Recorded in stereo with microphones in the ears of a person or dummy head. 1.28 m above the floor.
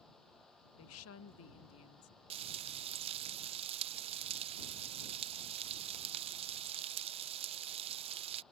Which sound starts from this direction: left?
A woman speaking, at 0.8 s.